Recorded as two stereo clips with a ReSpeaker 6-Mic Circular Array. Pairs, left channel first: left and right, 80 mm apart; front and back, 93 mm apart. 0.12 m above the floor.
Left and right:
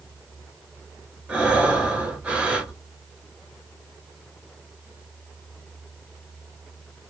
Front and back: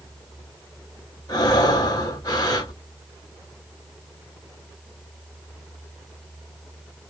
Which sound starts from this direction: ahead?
Breathing, at 1.3 s.